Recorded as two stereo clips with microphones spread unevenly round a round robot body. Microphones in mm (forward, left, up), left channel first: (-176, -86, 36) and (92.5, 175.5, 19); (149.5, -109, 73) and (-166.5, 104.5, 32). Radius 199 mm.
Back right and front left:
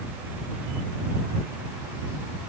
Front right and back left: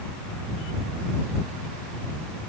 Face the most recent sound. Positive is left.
No sound to turn to.